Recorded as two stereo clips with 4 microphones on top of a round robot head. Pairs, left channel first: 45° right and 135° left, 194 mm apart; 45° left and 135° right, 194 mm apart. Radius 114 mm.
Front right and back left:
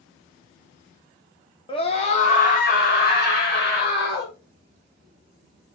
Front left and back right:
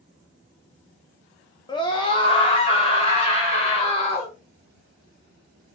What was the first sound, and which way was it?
A scream, 5° right.